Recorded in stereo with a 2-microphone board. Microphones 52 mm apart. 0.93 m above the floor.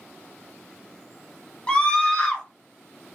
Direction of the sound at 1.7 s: 20° left (ahead or behind).